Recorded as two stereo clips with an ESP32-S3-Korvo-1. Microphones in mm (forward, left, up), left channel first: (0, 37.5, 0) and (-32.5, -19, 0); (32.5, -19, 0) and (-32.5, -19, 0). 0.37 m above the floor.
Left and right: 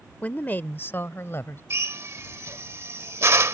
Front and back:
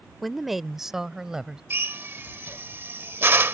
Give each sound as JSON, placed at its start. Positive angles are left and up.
{"t": 0.2, "sound": "a woman speaking", "azimuth_deg": 85}
{"t": 1.7, "sound": "a drill", "azimuth_deg": -140}